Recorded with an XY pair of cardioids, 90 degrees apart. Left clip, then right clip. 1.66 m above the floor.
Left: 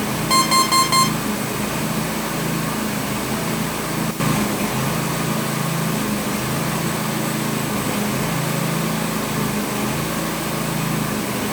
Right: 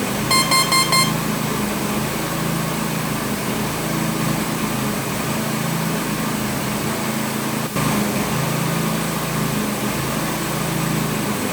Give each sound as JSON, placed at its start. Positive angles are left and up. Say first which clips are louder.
{"t": 0.3, "sound": "an alarm clock", "louder": "left 1 dB", "azimuth_deg": -5, "distance_m": 5.0}